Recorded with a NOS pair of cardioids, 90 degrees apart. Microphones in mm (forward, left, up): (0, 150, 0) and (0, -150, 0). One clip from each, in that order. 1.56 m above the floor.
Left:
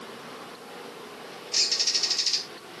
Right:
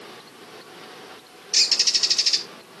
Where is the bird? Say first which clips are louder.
Right 5 dB; 35° right, 1.8 m.